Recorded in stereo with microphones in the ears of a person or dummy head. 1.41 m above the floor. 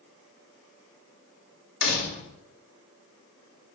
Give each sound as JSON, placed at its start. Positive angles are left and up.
{"t": 1.8, "sound": "a door slam", "side_deg": 65, "distance_m": 2.5}